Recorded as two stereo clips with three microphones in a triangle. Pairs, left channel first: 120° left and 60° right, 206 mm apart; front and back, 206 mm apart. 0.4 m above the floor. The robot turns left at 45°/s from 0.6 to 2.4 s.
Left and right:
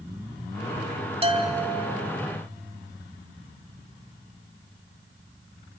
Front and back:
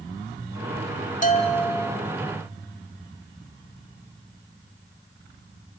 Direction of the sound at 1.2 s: 15° right.